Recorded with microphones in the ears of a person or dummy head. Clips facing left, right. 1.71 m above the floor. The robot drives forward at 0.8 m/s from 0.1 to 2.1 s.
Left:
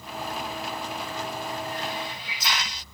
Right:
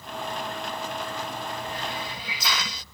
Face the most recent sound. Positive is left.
turn(degrees=-75)  # may be behind; listen again after turning